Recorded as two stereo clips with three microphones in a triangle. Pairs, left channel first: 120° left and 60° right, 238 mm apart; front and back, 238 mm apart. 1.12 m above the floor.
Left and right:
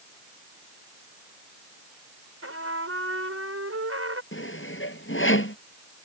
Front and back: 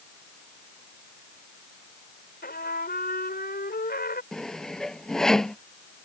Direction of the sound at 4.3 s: 90° left.